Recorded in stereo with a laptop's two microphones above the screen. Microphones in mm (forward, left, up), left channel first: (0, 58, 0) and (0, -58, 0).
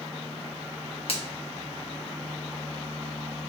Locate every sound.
1.1 s a finger snap: 55° left (ahead or behind), 0.8 m